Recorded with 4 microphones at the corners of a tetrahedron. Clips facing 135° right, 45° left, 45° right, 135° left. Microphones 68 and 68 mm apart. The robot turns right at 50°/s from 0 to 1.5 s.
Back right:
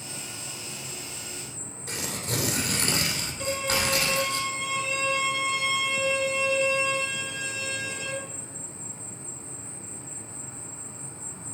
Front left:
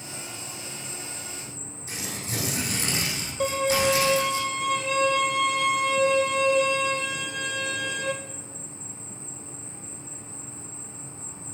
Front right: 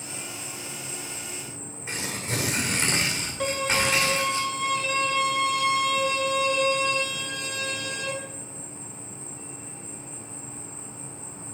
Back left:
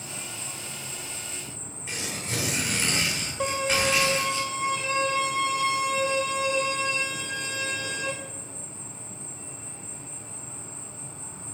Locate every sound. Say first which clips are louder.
0.0 s an insect: front left 1 dB, front right 1 dB; 160° left, 4 m; by 11.6 s 125° right, 4 m
1.9 s tearing paper: back right 2 dB, front right 2 dB; 110° right, 2.5 m
3.4 s a violin: front left 6 dB, even; 65° left, 1.6 m